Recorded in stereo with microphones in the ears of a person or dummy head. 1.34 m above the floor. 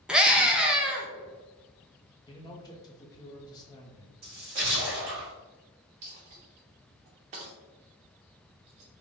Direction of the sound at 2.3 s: 20° left (ahead or behind).